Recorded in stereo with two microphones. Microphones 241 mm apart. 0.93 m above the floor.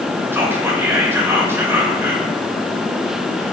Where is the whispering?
10° right (ahead or behind), 0.5 m.